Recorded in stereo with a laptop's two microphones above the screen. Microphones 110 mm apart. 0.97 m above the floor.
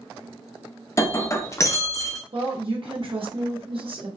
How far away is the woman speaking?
About 1.3 m.